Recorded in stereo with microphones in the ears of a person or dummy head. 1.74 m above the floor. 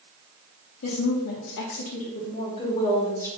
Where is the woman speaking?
65° left (ahead or behind), 0.7 m; by 3.3 s 20° left (ahead or behind), 1.4 m.